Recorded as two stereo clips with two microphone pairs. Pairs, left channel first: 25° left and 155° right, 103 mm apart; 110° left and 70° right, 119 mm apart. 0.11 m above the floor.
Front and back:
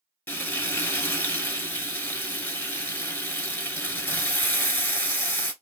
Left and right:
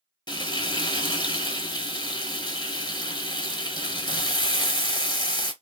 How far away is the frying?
About 0.9 m.